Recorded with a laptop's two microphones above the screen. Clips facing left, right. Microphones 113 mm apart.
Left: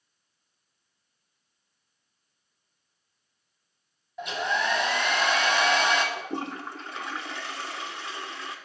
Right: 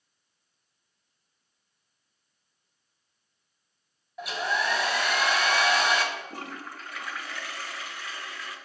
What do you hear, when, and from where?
4.2 s a hair dryer: 5° right (ahead or behind), 1.1 m
6.2 s a toilet flushing: 25° left (ahead or behind), 0.6 m